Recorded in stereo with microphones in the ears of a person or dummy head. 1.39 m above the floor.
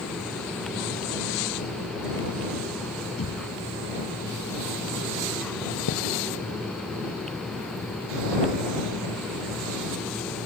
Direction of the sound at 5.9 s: 75° left (ahead or behind).